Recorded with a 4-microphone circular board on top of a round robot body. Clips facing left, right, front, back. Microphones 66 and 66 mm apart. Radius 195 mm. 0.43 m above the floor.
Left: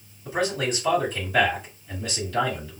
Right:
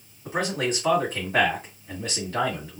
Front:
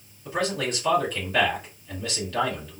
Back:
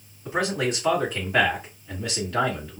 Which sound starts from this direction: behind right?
A man speaking, at 0.2 s.